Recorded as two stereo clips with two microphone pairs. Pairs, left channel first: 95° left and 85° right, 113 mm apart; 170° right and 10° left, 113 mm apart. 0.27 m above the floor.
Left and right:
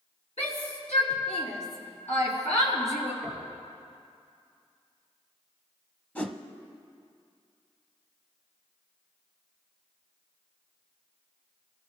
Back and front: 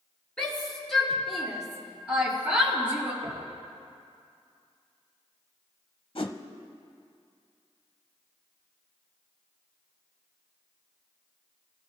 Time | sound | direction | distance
0.4 | a shout | 105° left | 5 m
3.2 | knocking | 20° left | 4.5 m
6.2 | a whoosh | 170° left | 0.8 m